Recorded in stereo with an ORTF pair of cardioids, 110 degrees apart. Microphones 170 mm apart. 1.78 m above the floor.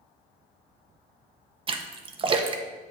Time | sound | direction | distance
1.7 | a splash | 35° right | 0.6 m